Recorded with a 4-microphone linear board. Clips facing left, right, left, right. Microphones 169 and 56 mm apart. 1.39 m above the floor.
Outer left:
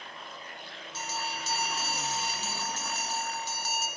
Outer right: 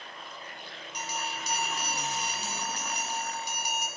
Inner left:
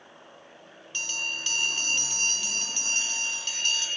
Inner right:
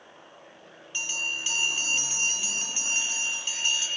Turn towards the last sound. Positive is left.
turn(degrees=-15)  # may be behind; listen again after turning